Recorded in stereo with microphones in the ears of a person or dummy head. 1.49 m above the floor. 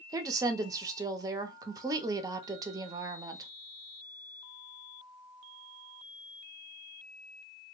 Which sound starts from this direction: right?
A woman speaking, at 0.1 s.